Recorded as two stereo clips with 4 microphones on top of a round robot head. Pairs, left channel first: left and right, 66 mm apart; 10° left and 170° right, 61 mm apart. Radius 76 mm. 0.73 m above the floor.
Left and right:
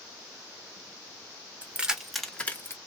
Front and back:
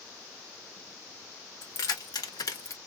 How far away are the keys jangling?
About 1.1 m.